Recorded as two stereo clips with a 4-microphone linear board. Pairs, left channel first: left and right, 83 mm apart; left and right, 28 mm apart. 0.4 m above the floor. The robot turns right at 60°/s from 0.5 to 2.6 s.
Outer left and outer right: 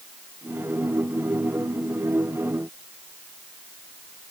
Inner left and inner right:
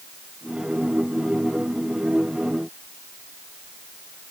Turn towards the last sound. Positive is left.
No sound to turn to.